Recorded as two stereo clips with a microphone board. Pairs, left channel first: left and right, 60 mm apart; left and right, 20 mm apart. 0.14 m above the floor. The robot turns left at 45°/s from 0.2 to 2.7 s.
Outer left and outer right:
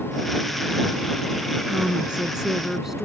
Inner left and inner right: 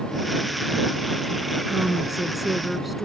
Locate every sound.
1.7 s a woman speaking: 20° right (ahead or behind); by 3.0 s 5° right (ahead or behind)